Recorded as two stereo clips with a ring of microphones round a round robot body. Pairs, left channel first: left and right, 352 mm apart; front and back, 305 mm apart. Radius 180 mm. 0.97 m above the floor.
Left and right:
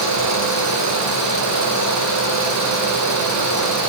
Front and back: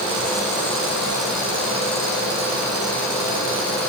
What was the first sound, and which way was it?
Only background noise.